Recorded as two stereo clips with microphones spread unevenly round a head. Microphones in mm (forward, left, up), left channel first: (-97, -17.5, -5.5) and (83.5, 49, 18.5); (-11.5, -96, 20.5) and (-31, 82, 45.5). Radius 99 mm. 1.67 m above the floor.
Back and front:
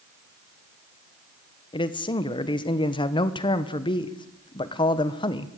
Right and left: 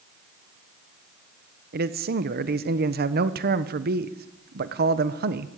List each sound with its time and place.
1.7 s a man speaking: 130° left, 1.1 m